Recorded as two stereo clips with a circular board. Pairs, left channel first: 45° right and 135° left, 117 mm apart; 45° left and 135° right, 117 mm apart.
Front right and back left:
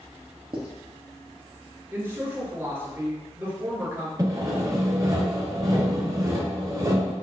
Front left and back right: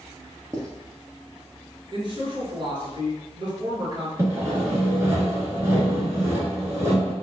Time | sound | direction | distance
0.5 | writing | 165° left | 1.3 m
1.9 | a man speaking | 160° right | 1.9 m
4.2 | sawing | 175° left | 1.8 m